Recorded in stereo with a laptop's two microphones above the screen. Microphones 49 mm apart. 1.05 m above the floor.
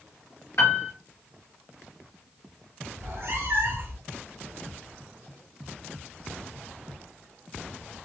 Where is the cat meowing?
55° right (ahead or behind), 1.5 m.